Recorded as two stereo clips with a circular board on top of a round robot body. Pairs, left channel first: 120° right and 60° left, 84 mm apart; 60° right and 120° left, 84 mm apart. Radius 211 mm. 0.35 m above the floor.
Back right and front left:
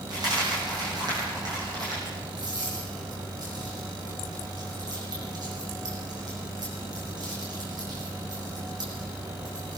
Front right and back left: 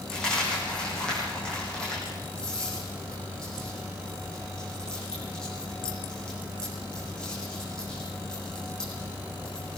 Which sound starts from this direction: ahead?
A dropped coin, at 0.1 s.